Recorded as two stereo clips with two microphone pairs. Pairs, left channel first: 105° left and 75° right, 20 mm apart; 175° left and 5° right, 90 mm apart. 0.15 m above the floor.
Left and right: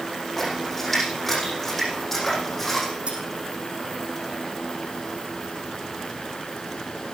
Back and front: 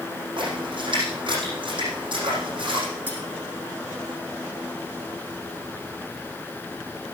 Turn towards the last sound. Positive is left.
turn(degrees=-70)